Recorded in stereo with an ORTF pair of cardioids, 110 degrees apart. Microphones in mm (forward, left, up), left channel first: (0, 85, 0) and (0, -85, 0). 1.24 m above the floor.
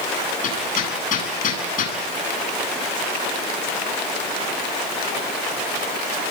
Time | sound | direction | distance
0.4 | hammering | 50° left | 10 m